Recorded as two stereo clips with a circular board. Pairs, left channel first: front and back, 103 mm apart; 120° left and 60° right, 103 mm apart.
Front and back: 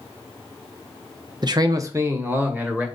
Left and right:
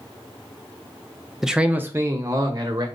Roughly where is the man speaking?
Behind right.